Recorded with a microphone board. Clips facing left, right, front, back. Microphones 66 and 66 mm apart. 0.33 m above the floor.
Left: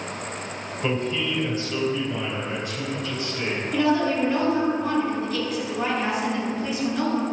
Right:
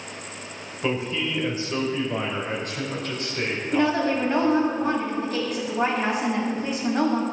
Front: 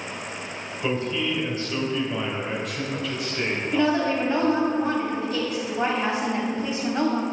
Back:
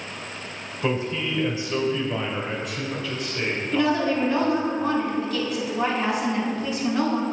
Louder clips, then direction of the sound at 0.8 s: Even, even; 175° right.